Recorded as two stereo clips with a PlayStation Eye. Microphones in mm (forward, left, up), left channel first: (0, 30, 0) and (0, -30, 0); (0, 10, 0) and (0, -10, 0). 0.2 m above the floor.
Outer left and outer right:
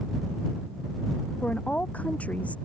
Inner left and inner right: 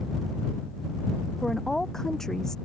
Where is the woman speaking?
25° left (ahead or behind).